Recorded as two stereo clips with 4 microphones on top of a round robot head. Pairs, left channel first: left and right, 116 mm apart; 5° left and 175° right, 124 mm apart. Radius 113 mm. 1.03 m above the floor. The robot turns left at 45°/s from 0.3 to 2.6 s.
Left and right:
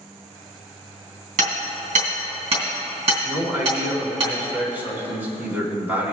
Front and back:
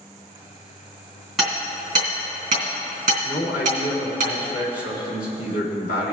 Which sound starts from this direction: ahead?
A man speaking, at 3.2 s.